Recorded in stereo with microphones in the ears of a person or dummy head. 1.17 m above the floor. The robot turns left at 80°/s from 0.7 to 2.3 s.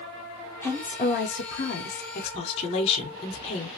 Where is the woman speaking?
160° left, 0.7 m; by 3.7 s 35° left, 0.7 m.